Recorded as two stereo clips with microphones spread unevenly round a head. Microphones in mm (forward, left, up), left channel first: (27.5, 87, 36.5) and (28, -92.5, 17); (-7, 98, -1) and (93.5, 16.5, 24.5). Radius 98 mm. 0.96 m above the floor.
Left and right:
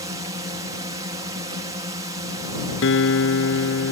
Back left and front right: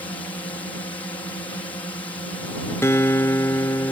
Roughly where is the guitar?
Left.